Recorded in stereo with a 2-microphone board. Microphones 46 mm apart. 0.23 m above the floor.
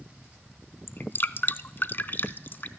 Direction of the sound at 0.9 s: 55° left (ahead or behind).